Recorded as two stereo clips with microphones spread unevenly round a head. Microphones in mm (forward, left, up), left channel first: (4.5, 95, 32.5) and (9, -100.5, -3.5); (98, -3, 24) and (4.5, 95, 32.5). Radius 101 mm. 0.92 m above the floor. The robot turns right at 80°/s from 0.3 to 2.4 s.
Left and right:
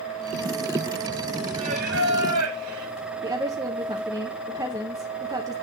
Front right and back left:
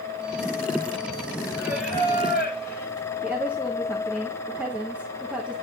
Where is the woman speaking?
145° right, 0.8 m.